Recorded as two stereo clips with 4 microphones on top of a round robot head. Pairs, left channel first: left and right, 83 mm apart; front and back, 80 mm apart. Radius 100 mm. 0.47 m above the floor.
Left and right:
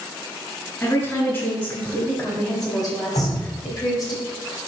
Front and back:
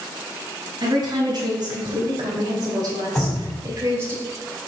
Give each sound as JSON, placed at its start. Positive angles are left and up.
{"t": 0.8, "sound": "a woman speaking", "azimuth_deg": 145, "distance_m": 3.0}
{"t": 3.1, "sound": "dripping", "azimuth_deg": 80, "distance_m": 1.7}